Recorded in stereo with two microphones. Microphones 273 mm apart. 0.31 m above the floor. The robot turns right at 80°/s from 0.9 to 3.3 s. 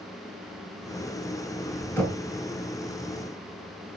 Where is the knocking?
5° left (ahead or behind), 2.5 m; by 2.2 s 10° right (ahead or behind), 2.5 m.